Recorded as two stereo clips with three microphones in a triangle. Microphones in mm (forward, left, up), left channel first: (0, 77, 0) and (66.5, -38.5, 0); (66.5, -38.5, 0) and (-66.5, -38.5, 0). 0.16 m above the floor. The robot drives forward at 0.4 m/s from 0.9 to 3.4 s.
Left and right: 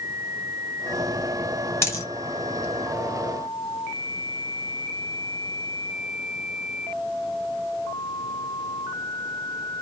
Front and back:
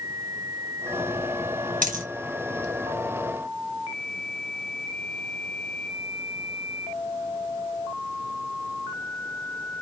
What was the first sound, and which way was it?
A dropped coin, 170° right.